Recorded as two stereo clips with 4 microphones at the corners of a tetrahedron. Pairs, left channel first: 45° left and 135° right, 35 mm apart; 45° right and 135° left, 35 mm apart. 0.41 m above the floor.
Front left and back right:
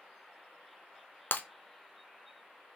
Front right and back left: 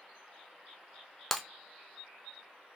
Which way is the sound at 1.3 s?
45° left.